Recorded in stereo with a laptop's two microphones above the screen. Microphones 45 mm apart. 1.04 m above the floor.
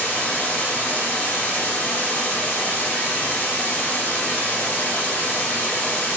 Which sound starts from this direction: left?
Running water, at 0.0 s.